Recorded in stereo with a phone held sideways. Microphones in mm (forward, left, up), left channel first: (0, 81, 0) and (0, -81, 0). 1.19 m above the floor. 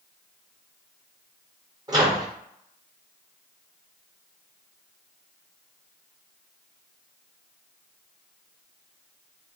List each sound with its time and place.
1.9 s a microwave: 25° right (ahead or behind), 1.1 m